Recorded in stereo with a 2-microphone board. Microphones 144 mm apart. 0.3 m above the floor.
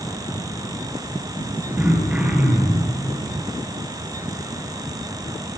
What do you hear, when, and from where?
1.8 s throat clearing: 10° right (ahead or behind), 2 m